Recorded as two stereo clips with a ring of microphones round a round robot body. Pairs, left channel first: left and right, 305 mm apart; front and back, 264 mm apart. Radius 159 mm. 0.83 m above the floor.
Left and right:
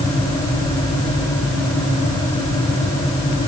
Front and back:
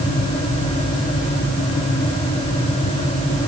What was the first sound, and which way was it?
Only background noise.